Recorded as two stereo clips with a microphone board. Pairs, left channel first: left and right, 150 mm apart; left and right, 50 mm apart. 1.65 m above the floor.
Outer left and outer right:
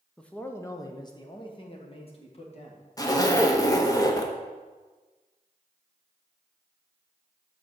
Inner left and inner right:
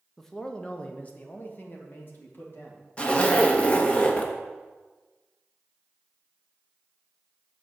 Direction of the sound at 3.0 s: 25° left (ahead or behind).